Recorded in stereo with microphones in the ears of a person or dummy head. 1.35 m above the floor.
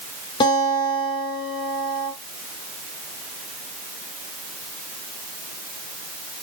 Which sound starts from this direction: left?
A guitar, at 0.4 s.